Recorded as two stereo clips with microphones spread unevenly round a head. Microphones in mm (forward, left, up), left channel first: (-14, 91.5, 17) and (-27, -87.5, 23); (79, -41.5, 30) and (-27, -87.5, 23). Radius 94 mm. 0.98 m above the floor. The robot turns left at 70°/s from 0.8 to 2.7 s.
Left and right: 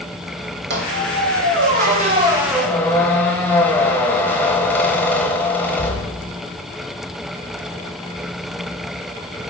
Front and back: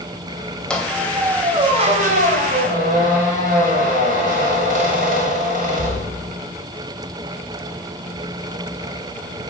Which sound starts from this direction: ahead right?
A squeak, at 0.7 s.